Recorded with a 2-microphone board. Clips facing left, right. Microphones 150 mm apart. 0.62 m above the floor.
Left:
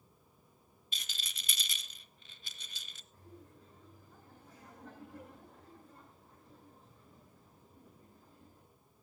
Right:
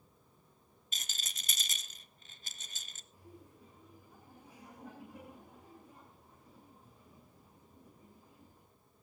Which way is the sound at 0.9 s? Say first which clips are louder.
Even; 45° right (ahead or behind).